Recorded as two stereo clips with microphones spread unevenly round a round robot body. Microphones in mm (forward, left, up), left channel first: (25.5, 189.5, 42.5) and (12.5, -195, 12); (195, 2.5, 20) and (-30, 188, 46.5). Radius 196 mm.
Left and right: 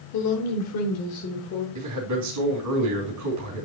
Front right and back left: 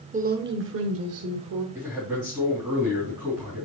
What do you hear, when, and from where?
0.1 s a woman speaking: 80° left, 1.2 m; by 1.6 s 145° left, 1.6 m
1.8 s a man speaking: 135° right, 3 m